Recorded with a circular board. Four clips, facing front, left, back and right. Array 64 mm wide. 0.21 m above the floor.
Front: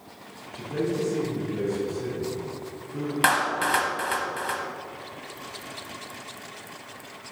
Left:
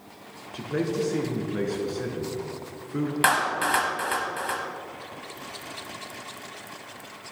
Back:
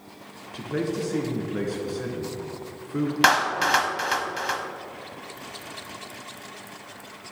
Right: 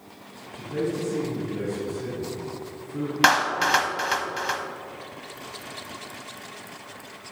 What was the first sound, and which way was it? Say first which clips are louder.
A man speaking: left 1 dB, even; 135° left.